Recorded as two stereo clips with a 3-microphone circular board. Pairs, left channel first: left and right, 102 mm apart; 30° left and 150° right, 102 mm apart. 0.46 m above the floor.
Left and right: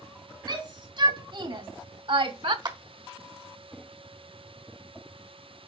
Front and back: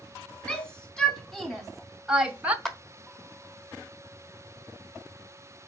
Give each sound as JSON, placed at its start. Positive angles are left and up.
{"t": 0.5, "sound": "a shout", "azimuth_deg": -50, "distance_m": 3.5}
{"t": 2.6, "sound": "a clap", "azimuth_deg": -55, "distance_m": 1.4}